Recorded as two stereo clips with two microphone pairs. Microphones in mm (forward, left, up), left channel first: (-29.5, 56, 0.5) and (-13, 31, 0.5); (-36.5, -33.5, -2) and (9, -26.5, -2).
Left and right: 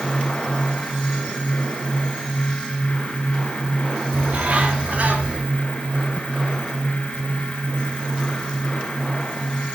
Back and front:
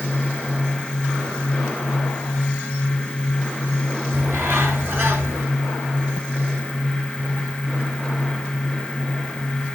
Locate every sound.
4.1 s a bird: 20° right, 3.5 m